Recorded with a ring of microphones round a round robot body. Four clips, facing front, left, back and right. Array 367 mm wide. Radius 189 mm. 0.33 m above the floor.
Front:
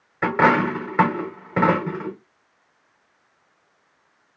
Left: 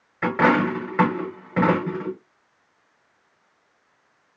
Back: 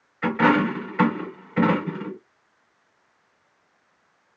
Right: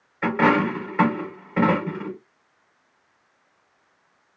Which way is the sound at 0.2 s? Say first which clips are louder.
Even, front 2 dB; 20° left.